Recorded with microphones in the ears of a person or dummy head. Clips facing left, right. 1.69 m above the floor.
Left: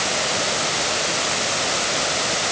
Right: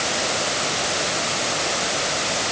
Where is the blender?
No blender in this recording.